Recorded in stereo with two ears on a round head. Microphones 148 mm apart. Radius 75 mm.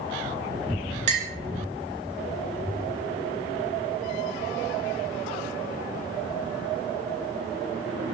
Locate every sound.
1.1 s a clink: 45° right (ahead or behind), 0.6 m